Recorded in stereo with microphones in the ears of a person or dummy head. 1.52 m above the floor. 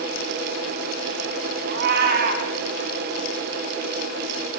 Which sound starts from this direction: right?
A cat meowing, at 1.7 s.